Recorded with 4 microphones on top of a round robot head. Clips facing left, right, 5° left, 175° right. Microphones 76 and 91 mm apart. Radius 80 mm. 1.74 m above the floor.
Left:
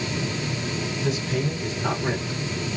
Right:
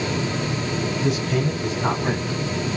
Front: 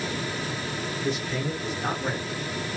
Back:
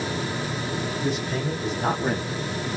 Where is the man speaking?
120° right, 1.8 m; by 2.4 s 145° right, 1.3 m.